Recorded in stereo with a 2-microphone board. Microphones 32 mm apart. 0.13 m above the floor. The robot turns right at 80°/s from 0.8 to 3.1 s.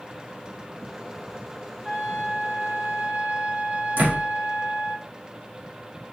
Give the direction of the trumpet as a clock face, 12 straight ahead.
5 o'clock.